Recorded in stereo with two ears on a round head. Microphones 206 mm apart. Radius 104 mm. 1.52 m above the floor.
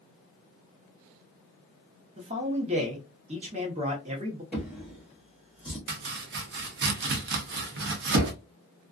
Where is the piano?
I don't hear a piano.